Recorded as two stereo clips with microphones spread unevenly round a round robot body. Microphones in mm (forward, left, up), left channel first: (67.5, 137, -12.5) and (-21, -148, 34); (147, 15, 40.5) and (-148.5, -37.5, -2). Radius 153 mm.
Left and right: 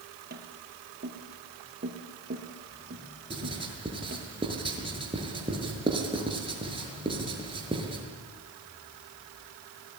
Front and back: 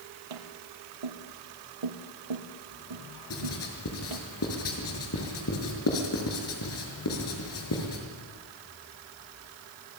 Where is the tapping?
170° right, 3 m.